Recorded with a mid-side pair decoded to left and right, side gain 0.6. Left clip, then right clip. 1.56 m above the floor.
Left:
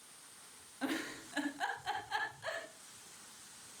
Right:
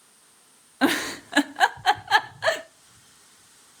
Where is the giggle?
70° right, 0.7 m.